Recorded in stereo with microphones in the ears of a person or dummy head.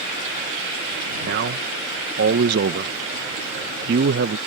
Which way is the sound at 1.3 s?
50° right (ahead or behind).